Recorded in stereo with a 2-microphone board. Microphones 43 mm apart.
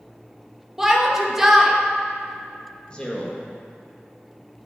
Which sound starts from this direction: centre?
A shout, at 0.8 s.